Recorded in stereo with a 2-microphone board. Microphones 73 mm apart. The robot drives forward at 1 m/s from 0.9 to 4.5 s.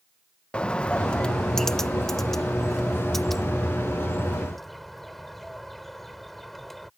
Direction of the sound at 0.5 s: 15° left (ahead or behind).